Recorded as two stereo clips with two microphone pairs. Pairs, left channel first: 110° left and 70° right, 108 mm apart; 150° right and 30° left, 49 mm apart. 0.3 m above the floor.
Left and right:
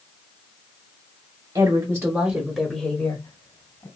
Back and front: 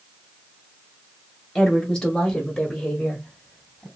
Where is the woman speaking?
80° right, 1.5 m; by 3.9 s 135° left, 1.6 m.